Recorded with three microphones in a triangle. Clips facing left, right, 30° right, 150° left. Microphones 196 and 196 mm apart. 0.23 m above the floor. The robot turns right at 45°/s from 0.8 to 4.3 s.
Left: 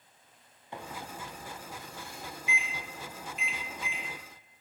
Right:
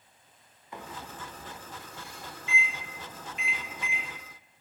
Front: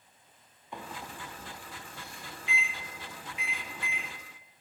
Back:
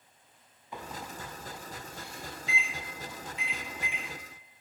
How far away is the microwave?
About 0.8 m.